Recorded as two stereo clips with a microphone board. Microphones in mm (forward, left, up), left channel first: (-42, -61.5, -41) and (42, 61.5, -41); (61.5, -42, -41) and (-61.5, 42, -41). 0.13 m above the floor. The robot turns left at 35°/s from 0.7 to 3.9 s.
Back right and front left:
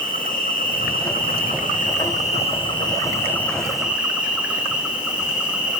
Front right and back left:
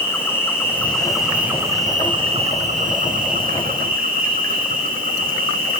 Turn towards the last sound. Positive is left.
turn(degrees=140)